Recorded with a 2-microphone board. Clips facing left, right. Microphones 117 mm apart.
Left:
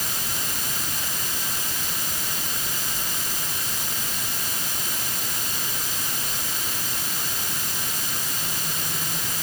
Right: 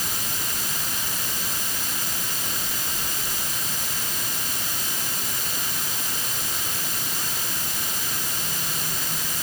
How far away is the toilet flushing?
I don't hear a toilet flushing.